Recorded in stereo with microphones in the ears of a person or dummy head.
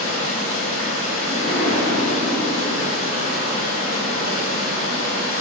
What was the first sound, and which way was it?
Running water, 45° left (ahead or behind).